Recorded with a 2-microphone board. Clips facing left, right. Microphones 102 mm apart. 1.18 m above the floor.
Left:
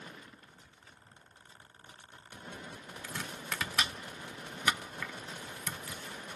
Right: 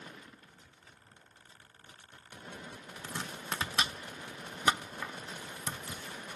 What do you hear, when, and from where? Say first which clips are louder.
3.0 s chopping: right 2 dB; 30° right (ahead or behind), 0.5 m